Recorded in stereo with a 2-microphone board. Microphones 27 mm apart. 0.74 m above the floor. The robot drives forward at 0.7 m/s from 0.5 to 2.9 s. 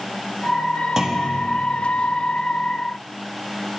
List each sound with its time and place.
1.0 s a clunk: 30° right (ahead or behind), 0.7 m; by 1.4 s 20° right (ahead or behind), 0.9 m